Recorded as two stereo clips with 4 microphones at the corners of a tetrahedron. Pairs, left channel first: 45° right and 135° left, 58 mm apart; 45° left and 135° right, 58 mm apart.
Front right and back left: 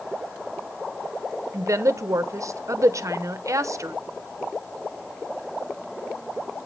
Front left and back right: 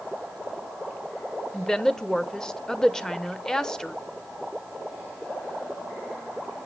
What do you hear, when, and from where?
1.5 s a woman speaking: 125° left, 0.7 m